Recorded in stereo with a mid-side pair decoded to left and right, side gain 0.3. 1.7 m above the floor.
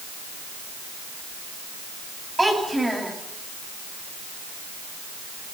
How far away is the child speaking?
About 10 m.